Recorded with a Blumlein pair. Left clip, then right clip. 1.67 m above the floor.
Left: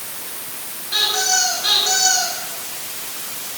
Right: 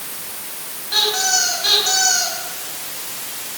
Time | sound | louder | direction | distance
0.9 | a squeak | right 1 dB | 10° right | 5 m